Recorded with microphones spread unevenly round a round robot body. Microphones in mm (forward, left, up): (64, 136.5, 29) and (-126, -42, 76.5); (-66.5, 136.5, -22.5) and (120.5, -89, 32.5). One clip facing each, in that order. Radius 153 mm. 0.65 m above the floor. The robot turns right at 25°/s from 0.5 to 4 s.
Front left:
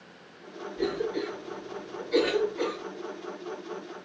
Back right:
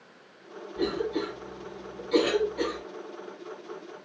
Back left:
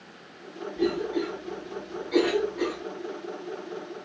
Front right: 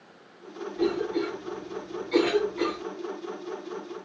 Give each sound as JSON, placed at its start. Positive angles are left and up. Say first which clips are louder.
{"t": 0.8, "sound": "a cough", "louder": "back right 1 dB, even", "azimuth_deg": -140, "distance_m": 2.5}